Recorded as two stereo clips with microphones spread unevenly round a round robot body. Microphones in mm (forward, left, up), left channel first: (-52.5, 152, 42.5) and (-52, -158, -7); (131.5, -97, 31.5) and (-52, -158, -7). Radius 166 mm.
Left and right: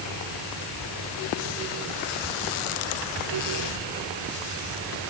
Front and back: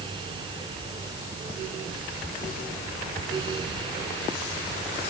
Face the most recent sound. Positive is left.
No sound to turn to.